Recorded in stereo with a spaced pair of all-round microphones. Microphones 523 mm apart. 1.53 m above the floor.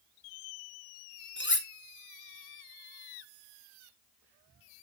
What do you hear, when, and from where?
1.4 s cutlery clinking: 20° left (ahead or behind), 0.7 m